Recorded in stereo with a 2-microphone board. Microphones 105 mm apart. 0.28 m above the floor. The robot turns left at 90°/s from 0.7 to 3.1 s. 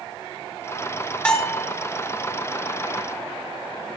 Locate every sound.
1.2 s a bell: 10° left (ahead or behind), 1.2 m; by 1.7 s 10° right (ahead or behind), 1.2 m